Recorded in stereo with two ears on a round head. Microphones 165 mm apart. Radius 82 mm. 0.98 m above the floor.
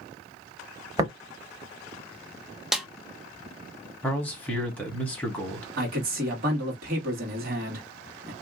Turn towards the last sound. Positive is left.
turn(degrees=-50)  # may be behind; listen again after turning